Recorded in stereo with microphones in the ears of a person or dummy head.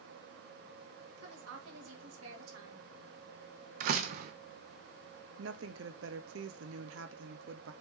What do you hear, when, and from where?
1.2 s a woman speaking: 80° right, 2.5 m
3.8 s a door slam: 50° right (ahead or behind), 0.8 m
5.4 s a woman speaking: 70° right (ahead or behind), 0.9 m